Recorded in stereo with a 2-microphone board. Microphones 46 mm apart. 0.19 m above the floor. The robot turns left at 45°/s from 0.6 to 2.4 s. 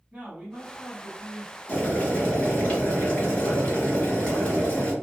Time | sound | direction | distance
0.1 | a man speaking | 125° right | 1.4 m
1.7 | boiling | 110° left | 1.3 m